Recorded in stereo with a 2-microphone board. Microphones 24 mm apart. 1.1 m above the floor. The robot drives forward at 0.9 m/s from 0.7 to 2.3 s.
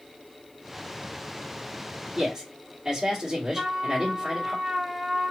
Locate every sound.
2.1 s a man speaking: 30° right (ahead or behind), 1.8 m
3.5 s a trumpet: 25° right (ahead or behind), 1.6 m